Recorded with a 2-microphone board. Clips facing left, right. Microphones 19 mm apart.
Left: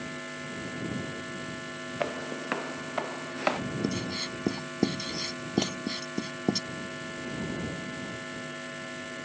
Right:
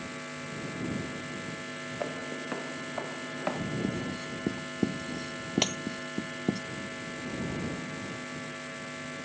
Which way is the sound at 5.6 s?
30° right (ahead or behind).